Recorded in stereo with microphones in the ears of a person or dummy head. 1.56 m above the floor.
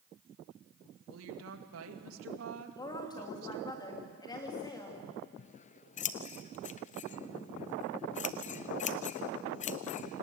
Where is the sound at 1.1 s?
80° right, 2 m.